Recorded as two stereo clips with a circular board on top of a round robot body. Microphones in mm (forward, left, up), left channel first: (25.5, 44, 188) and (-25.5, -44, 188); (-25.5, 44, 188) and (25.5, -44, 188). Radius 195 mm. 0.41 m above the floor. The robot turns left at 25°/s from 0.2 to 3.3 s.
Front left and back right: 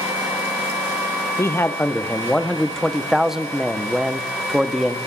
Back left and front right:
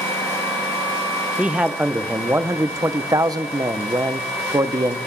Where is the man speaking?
10° left, 1.0 m; by 5.0 s 35° right, 1.0 m.